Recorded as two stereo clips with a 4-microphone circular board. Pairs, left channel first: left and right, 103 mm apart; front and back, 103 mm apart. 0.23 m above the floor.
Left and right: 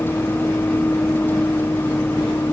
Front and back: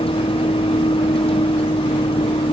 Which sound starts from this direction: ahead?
A vehicle, at 0.0 s.